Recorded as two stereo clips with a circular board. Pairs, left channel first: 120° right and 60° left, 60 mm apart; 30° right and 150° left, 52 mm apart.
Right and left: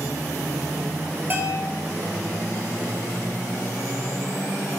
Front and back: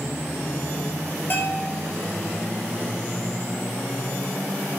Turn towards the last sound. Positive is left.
turn(degrees=10)